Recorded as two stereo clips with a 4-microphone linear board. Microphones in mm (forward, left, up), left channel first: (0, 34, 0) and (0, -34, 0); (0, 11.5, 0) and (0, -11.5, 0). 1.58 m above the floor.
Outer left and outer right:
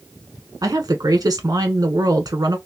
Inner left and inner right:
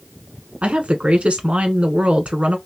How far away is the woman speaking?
About 1.0 m.